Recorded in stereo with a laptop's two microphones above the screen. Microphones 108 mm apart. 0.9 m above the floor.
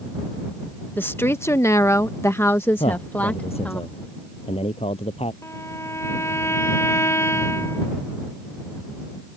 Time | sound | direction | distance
1.0 | a woman speaking | 20° left (ahead or behind) | ?
2.8 | a man speaking | 70° left (ahead or behind) | ?
5.4 | a violin | 25° left (ahead or behind) | ?